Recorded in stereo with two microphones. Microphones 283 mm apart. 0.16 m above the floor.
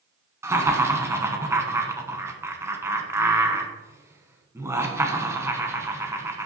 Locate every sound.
0.4 s laughter: 10° right (ahead or behind), 1.2 m